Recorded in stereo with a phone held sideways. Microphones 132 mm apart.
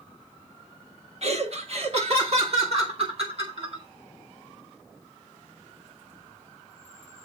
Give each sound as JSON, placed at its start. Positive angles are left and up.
{"t": 1.2, "sound": "laughter", "side_deg": -55, "distance_m": 1.4}